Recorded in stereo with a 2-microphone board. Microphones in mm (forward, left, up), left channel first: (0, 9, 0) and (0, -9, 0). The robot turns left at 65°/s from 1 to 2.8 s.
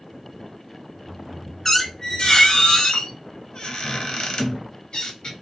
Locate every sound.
1.6 s a squeak: 155° left, 0.5 m; by 5.3 s 80° left, 0.5 m